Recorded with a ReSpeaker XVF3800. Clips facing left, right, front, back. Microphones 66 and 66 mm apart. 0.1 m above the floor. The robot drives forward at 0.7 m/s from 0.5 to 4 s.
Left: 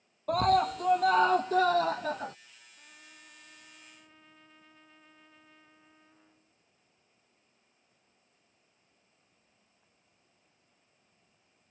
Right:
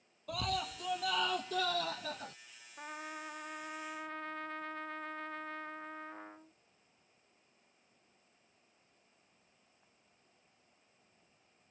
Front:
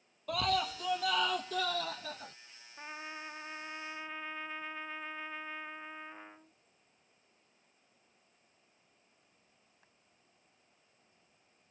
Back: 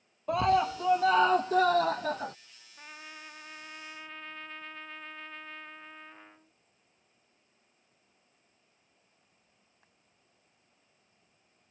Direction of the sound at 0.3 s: 120° left.